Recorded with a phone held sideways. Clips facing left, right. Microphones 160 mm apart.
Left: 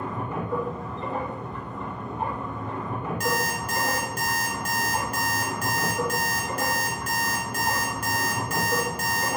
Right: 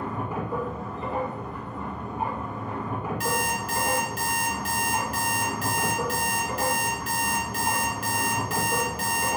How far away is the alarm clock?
About 1.0 m.